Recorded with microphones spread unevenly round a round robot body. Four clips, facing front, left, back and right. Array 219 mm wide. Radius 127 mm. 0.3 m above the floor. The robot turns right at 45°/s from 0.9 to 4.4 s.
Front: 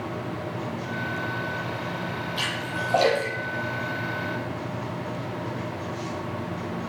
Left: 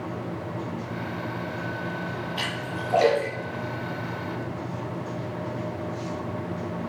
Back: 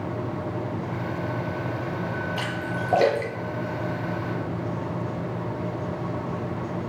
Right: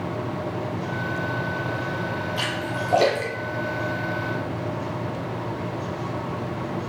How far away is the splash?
About 4 m.